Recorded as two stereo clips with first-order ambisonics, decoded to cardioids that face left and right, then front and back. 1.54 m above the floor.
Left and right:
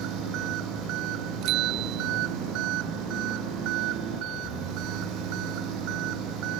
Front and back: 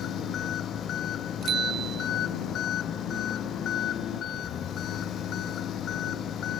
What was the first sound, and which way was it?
An engine running, 55° right.